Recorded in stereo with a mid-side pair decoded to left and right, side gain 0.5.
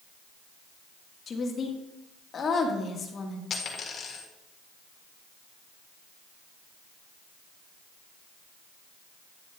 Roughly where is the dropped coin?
Ahead left.